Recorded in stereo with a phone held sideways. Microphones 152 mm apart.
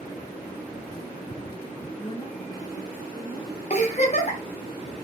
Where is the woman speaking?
30° left (ahead or behind), 1.6 m.